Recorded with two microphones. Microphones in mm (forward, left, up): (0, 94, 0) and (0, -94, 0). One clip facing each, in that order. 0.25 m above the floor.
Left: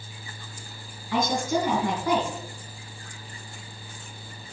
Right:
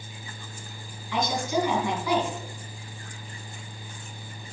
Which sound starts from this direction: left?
A woman speaking, at 1.1 s.